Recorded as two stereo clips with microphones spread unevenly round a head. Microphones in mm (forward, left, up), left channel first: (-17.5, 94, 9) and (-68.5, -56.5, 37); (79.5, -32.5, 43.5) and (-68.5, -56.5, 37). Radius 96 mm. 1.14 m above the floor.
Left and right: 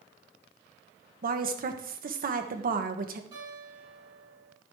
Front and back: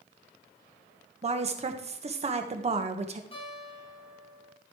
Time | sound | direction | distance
1.2 | a woman speaking | 135° right | 1.4 m
3.3 | a guitar | 40° right | 5.5 m